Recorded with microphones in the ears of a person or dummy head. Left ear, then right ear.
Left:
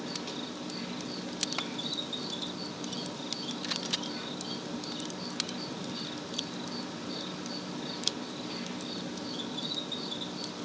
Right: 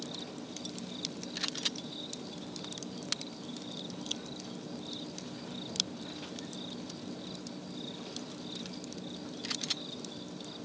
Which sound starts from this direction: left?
An insect, at 0.0 s.